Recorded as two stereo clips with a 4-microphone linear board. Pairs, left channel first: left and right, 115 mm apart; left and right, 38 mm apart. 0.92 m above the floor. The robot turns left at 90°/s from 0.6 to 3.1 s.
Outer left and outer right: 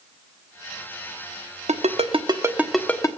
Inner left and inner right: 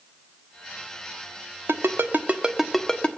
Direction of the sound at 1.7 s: 85° right.